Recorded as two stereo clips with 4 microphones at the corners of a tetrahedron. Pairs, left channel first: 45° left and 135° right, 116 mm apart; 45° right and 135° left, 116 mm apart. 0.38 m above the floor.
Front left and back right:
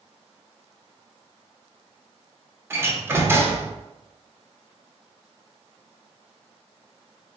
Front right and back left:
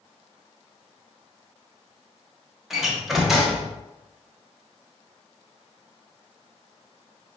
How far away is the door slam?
About 0.6 m.